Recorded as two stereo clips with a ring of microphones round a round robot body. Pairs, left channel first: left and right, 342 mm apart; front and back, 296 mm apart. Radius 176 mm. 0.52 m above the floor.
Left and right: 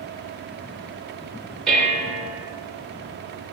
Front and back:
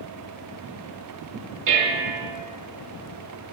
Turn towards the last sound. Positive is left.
turn(degrees=180)